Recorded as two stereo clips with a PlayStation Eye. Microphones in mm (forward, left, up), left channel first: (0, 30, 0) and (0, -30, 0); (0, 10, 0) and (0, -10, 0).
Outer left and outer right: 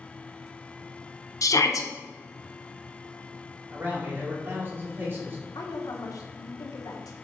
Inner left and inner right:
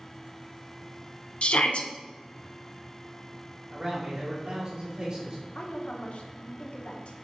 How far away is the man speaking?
About 4 m.